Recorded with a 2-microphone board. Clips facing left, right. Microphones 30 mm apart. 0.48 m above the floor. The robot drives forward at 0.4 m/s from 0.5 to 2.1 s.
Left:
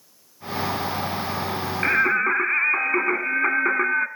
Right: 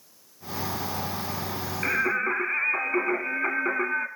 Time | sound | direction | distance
1.8 | singing | 25° left (ahead or behind) | 1.8 m